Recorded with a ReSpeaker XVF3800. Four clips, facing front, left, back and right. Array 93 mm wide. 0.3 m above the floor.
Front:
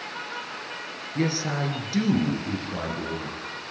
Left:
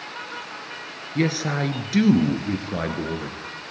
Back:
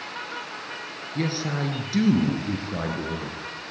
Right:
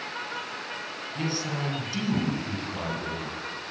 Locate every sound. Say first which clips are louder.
1.1 s a man speaking: left 8 dB, front 1 dB; 80° left, 4 m; by 3.4 s 105° left, 5 m